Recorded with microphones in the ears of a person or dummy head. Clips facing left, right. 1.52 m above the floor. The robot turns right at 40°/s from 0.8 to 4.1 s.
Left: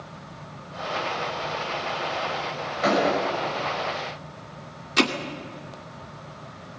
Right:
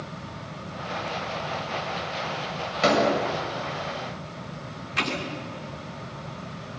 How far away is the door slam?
About 7 m.